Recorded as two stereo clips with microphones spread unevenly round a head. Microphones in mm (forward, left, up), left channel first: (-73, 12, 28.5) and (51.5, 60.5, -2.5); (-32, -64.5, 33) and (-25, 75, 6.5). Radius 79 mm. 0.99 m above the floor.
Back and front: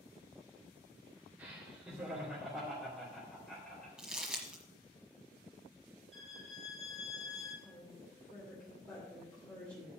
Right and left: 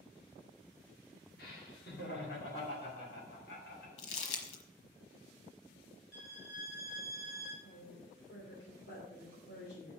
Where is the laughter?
60° right, 2.5 m; by 3.9 s 75° right, 3.5 m.